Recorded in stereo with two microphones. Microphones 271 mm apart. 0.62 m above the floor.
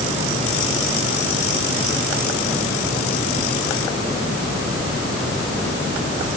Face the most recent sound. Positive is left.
No sound to turn to.